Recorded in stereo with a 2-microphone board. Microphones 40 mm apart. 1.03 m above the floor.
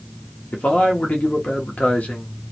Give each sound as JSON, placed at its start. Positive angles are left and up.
{"t": 0.5, "sound": "a man speaking", "side_deg": 35, "distance_m": 0.7}